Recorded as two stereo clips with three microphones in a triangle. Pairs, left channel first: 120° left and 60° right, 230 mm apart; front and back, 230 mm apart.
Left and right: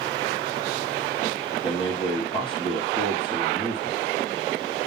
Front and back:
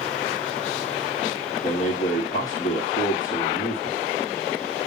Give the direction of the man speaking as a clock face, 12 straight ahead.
10 o'clock.